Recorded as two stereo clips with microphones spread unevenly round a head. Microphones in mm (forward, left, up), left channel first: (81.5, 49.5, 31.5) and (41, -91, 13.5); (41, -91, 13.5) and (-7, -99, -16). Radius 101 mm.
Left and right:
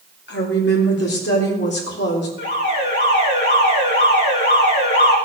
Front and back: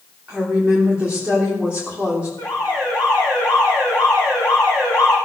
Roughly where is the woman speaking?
Left.